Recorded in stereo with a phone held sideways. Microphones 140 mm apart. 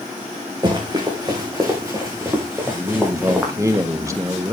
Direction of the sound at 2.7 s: 20° right (ahead or behind).